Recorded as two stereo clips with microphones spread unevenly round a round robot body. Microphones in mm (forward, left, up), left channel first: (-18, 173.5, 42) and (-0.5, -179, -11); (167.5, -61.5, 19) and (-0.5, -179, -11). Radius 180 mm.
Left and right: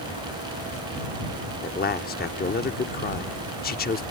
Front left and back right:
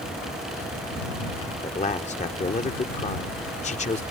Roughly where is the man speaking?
Ahead left.